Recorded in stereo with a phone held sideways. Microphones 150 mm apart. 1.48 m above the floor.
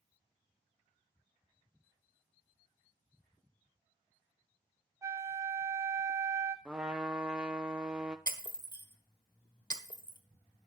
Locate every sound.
5.0 s a flute: 20° right (ahead or behind), 0.9 m
6.7 s a trumpet: 5° right (ahead or behind), 0.8 m
8.3 s breaking glass: 30° left (ahead or behind), 1.3 m